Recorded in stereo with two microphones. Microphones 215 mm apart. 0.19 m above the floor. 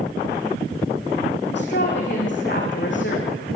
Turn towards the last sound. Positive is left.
turn(degrees=65)  # may be behind; listen again after turning